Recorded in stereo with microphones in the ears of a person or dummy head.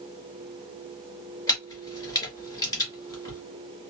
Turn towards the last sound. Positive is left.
turn(degrees=20)  # may be behind; listen again after turning